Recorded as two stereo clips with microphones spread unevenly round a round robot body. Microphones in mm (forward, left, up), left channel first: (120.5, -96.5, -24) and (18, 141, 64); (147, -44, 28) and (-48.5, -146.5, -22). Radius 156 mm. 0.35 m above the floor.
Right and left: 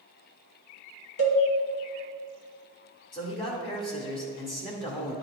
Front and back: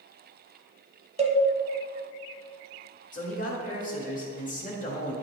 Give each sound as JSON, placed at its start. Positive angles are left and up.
{"t": 1.2, "sound": "a cowbell", "azimuth_deg": -95, "distance_m": 1.4}
{"t": 3.1, "sound": "a man speaking", "azimuth_deg": -25, "distance_m": 1.6}